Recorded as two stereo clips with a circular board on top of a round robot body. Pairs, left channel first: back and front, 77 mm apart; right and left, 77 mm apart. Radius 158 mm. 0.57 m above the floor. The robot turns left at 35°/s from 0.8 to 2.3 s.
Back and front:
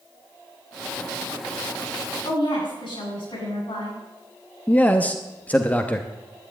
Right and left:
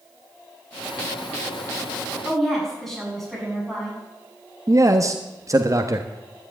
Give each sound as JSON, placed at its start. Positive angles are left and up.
{"t": 2.2, "sound": "a woman speaking", "azimuth_deg": -175, "distance_m": 7.0}
{"t": 4.7, "sound": "a man speaking", "azimuth_deg": 115, "distance_m": 1.3}